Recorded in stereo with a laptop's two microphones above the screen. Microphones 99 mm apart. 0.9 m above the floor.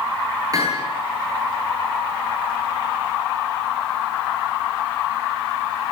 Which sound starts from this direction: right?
Hammering, at 0.5 s.